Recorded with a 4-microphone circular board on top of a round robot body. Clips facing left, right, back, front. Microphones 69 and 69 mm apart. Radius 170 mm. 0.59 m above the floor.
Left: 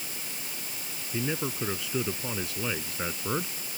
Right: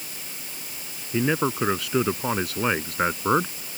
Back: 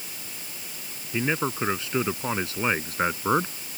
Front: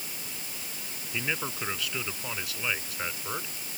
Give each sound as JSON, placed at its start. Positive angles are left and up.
{"t": 1.1, "sound": "a man speaking", "azimuth_deg": -110}